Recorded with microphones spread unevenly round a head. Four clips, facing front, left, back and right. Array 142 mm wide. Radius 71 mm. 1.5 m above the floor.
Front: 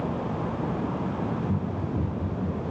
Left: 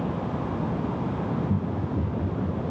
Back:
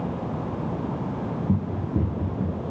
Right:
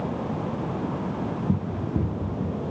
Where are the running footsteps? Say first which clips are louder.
Right 1 dB, back 3 dB; 130° right, 3.5 m; by 2.6 s 140° right, 3 m.